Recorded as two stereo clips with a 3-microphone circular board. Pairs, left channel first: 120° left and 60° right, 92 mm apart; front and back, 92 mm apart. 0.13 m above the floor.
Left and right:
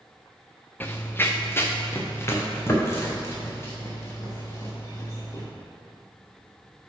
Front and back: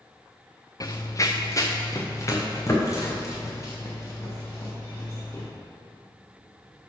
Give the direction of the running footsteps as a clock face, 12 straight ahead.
10 o'clock.